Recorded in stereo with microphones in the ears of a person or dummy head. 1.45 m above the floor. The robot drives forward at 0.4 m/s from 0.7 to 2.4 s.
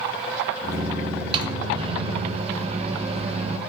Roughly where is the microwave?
Right.